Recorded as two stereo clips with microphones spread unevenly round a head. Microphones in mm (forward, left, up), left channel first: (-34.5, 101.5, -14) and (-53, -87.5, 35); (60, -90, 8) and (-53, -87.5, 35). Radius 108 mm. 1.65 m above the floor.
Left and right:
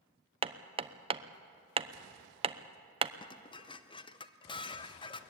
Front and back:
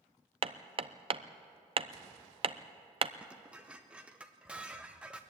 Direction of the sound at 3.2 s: 155° left.